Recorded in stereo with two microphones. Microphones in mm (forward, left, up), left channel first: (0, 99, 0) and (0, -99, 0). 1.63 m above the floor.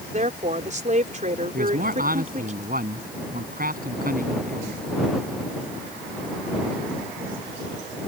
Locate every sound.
0.1 s a woman speaking: 40° right (ahead or behind)
1.5 s a man speaking: 45° right (ahead or behind)